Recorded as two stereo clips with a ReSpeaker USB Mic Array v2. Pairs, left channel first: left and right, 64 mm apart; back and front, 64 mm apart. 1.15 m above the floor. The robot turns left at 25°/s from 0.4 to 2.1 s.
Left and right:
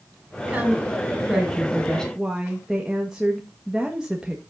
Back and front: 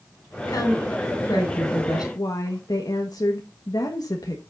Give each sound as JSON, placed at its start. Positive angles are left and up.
{"t": 0.5, "sound": "a woman speaking", "azimuth_deg": -155, "distance_m": 5.5}
{"t": 2.1, "sound": "a woman speaking", "azimuth_deg": -170, "distance_m": 1.3}